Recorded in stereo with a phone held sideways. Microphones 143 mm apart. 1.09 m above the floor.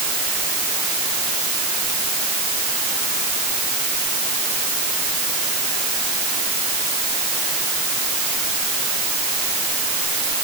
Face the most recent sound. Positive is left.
No sound to turn to.